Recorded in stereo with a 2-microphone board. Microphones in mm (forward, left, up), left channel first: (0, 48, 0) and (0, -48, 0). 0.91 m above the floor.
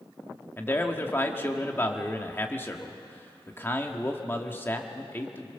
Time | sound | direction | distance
0.6 | a man speaking | 20° left (ahead or behind) | 1.8 m